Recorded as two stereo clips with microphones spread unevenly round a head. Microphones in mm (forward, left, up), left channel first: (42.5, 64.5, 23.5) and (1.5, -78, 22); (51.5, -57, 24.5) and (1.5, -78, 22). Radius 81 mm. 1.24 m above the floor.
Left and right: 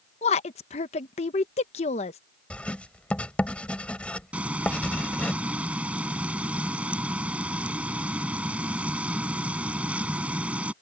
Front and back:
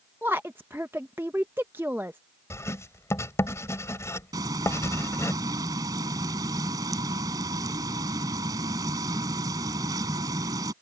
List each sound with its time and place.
0.2 s a woman speaking: 130° left
2.5 s writing: 10° right
4.3 s frying: 170° left